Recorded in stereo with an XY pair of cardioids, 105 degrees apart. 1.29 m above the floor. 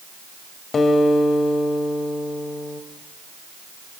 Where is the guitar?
45° left, 2.5 m.